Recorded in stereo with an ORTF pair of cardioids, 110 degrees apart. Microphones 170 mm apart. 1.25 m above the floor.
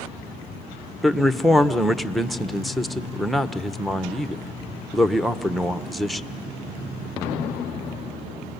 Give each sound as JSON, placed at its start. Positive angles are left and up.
{"t": 1.0, "sound": "a man speaking", "azimuth_deg": 0, "distance_m": 0.8}